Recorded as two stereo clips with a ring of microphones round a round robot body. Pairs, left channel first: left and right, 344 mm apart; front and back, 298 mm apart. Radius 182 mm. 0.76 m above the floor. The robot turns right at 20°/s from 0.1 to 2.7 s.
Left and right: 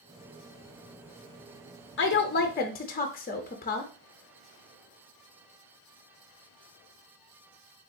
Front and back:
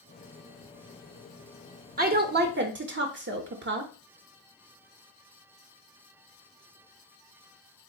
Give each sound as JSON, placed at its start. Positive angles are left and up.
{"t": 2.0, "sound": "a woman speaking", "azimuth_deg": 130, "distance_m": 0.6}